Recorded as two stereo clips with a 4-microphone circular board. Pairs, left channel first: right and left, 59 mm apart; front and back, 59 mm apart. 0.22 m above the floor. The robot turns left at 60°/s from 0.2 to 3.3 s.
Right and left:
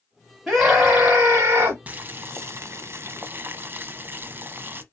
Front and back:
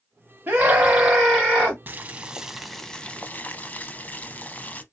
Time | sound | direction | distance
0.5 | a scream | 175° left | 1.2 m
1.9 | boiling | 140° left | 0.5 m